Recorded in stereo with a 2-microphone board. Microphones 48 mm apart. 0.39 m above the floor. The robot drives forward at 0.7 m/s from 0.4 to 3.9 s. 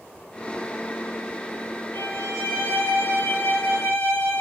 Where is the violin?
65° left (ahead or behind), 5 m; by 4.4 s 75° left (ahead or behind), 4.5 m.